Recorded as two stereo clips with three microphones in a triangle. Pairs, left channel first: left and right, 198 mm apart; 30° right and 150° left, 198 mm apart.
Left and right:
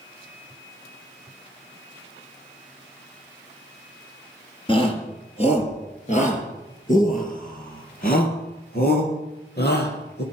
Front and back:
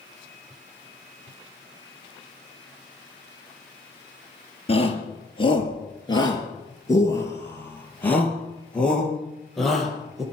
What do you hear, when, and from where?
4.7 s a shout: 25° left, 4 m; by 10.2 s 60° left, 5.5 m